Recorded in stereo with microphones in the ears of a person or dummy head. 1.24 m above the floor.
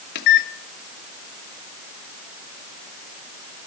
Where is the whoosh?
No whoosh in this recording.